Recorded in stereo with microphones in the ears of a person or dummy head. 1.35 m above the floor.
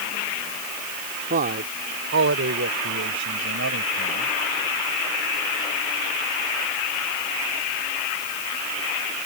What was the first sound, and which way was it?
A man speaking, 45° right (ahead or behind).